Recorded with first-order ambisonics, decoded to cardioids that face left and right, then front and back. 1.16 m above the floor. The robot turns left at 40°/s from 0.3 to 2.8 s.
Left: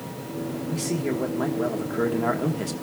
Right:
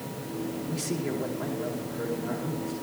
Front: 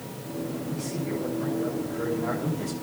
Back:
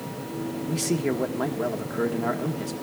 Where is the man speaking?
Straight behind, 1.2 m; by 2.7 s 95° left, 1.2 m.